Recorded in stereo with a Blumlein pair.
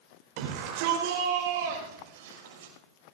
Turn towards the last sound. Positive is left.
turn(degrees=-60)